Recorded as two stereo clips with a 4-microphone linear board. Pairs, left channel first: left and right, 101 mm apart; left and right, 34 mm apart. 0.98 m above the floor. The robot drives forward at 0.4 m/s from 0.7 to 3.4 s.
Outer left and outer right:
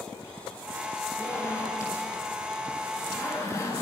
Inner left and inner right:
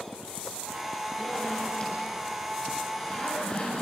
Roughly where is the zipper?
Left.